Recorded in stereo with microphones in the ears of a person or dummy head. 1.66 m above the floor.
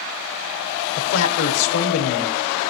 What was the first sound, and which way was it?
A man speaking, 75° left (ahead or behind).